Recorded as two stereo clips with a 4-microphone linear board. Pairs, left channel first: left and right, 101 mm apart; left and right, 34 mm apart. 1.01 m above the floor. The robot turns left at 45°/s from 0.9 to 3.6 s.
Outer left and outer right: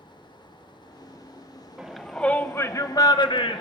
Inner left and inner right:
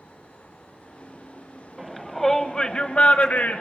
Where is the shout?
5° right (ahead or behind), 0.9 m; by 3.6 s 60° left (ahead or behind), 0.9 m.